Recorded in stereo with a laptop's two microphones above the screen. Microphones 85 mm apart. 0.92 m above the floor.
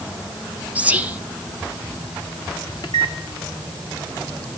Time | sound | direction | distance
0.8 | whispering | 20° right (ahead or behind) | 0.5 m
2.8 | a microwave | 60° left (ahead or behind) | 1.4 m